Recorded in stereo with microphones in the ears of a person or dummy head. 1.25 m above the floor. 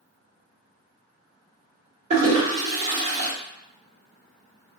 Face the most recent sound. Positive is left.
turn(degrees=-35)  # may be behind; listen again after turning